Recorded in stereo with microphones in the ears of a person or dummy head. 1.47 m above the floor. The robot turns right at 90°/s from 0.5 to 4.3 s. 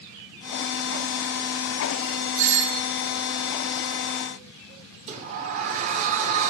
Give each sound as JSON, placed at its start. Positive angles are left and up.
{"t": 2.4, "sound": "a doorbell", "azimuth_deg": -80, "distance_m": 0.6}
{"t": 5.1, "sound": "a sliding door", "side_deg": -40, "distance_m": 0.6}